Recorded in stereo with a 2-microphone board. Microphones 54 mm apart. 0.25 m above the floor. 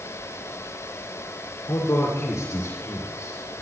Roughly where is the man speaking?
Left.